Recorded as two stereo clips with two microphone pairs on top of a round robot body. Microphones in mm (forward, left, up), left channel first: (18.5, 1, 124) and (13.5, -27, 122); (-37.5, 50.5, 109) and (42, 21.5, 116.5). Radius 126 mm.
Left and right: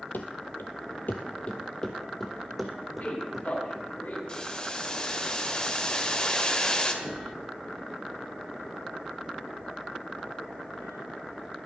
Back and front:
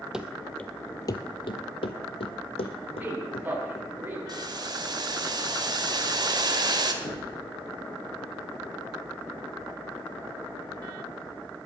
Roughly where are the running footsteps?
Ahead left.